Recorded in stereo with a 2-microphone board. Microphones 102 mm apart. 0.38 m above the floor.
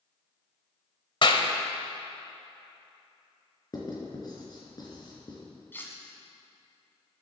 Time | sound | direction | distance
1.2 | a clap | 55° left (ahead or behind) | 1.0 m
3.7 | writing | 40° left (ahead or behind) | 3 m
5.7 | cutlery clinking | 20° left (ahead or behind) | 1.9 m